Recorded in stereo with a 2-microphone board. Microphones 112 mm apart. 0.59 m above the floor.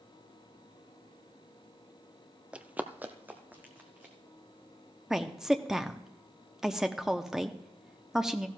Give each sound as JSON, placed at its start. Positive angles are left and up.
{"t": 2.5, "sound": "running footsteps", "side_deg": -10, "distance_m": 0.6}
{"t": 5.1, "sound": "a woman speaking", "side_deg": -5, "distance_m": 0.7}